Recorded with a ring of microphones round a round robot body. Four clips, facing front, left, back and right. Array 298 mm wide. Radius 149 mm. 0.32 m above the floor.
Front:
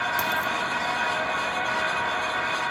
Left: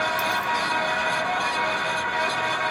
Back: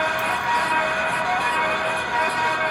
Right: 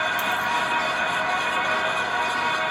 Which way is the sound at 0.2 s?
10° left.